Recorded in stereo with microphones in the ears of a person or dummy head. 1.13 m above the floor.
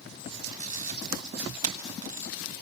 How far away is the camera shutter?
About 1.1 m.